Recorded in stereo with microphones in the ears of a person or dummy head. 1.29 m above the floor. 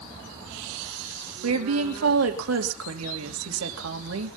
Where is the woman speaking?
85° right, 2.5 m.